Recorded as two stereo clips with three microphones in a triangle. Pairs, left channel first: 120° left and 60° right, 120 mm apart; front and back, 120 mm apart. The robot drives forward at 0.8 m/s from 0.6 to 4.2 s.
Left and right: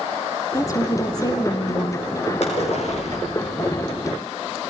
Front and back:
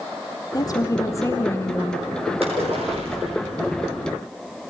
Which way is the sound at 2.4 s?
145° left.